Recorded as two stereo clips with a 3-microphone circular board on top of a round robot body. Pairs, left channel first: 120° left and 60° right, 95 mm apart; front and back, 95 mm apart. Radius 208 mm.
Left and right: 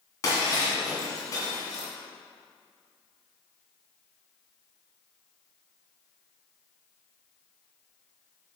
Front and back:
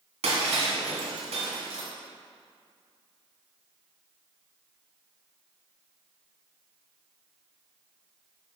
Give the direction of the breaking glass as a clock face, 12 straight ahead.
6 o'clock.